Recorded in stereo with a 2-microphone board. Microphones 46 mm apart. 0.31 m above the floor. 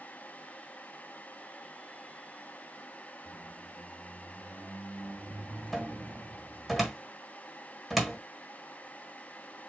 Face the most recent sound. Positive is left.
turn(degrees=0)  # may be behind; listen again after turning